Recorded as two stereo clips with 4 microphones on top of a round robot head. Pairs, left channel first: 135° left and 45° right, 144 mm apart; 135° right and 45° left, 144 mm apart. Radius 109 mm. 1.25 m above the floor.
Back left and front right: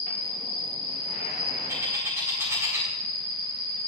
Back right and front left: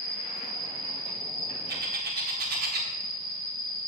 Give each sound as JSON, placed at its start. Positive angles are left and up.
{"t": 0.0, "sound": "an insect", "azimuth_deg": -40, "distance_m": 3.5}
{"t": 1.7, "sound": "a bird", "azimuth_deg": 25, "distance_m": 1.3}